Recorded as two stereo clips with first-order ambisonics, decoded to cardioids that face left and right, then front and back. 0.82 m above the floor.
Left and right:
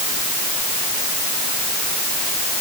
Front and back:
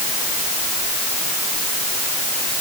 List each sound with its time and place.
Only background noise.